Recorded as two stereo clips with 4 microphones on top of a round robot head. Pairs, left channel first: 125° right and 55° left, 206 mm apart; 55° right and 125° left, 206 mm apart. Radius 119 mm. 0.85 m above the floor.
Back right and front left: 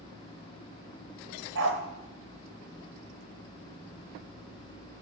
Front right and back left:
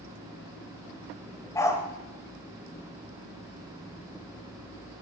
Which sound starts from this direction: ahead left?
A dog barking, at 1.6 s.